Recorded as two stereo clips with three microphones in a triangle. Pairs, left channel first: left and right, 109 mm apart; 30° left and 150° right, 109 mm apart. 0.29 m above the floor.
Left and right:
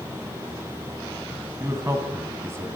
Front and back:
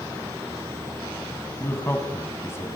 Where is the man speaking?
30° right, 2.5 m.